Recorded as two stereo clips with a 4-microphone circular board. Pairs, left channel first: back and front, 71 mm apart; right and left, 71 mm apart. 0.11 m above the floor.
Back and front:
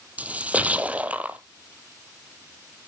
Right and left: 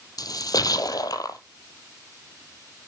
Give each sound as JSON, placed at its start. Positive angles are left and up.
{"t": 0.2, "sound": "a splash", "azimuth_deg": -70, "distance_m": 1.1}